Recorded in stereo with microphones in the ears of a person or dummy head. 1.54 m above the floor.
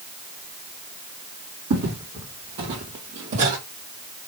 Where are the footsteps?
45° right (ahead or behind), 2.5 m; by 3.6 s 35° right (ahead or behind), 2.5 m.